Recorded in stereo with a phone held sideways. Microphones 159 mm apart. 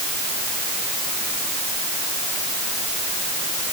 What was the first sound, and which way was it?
Only background noise.